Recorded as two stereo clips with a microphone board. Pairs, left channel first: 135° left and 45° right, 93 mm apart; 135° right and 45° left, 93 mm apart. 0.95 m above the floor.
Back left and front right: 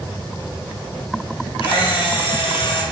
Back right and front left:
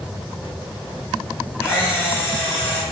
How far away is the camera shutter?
About 3.5 m.